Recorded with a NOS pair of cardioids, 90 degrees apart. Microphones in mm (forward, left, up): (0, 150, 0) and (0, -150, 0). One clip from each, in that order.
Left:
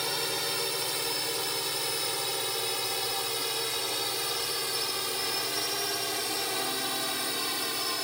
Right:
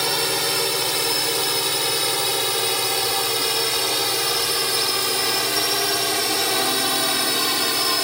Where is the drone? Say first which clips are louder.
Right 9 dB; 65° right; by 8.0 s 70° right.